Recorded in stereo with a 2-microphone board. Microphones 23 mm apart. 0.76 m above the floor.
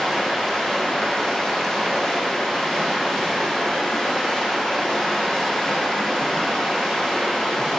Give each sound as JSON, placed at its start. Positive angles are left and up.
{"t": 0.0, "sound": "running water", "side_deg": 30, "distance_m": 5.0}